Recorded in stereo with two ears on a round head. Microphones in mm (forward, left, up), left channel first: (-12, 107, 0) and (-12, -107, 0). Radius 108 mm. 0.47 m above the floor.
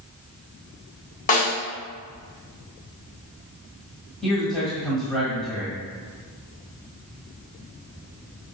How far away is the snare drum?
About 2.5 m.